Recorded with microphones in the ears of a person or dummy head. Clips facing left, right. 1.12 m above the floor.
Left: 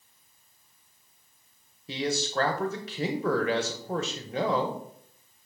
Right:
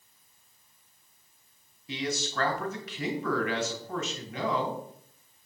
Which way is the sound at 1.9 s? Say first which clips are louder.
Left 3 dB; 30° left (ahead or behind).